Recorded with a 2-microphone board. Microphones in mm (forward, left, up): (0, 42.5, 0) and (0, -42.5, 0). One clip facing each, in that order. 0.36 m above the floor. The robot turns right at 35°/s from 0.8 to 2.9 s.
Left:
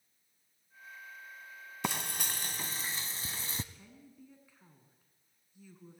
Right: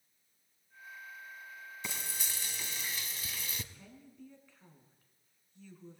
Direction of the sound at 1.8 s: 110° left.